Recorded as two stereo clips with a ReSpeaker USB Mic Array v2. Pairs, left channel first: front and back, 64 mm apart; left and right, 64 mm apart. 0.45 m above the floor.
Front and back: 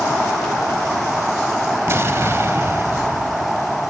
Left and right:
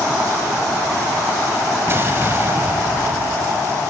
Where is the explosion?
135° right, 1.2 m.